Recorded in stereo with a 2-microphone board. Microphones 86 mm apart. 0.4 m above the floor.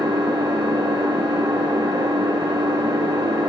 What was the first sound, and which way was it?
An engine running, 55° right (ahead or behind).